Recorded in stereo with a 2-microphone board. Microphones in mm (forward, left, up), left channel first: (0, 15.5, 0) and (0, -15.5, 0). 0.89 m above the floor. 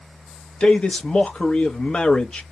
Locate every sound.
0.6 s a man speaking: 35° left (ahead or behind), 0.8 m